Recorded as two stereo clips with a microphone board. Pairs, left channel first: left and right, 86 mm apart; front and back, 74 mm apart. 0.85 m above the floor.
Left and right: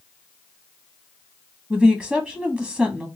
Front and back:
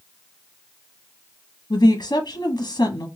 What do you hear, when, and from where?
1.7 s a woman speaking: straight ahead, 0.8 m